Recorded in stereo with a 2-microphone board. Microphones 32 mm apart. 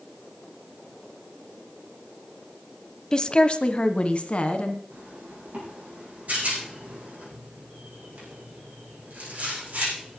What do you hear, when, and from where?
3.1 s a woman speaking: 25° left (ahead or behind), 1.0 m; by 4.8 s 45° left (ahead or behind), 2 m
4.9 s a zipper: 55° right (ahead or behind), 7 m
6.3 s a rattle: 60° right (ahead or behind), 7.5 m